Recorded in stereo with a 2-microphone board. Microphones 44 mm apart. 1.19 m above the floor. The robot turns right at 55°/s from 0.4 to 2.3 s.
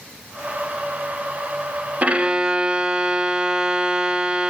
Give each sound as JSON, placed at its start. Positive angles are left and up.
{"t": 2.0, "sound": "a violin", "side_deg": -35, "distance_m": 1.1}